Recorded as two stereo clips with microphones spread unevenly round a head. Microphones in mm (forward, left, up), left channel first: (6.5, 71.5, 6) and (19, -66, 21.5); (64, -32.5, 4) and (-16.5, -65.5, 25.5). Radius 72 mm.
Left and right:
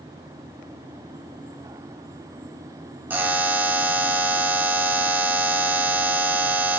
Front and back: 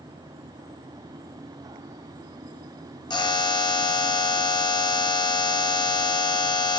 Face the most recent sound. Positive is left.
turn(degrees=-5)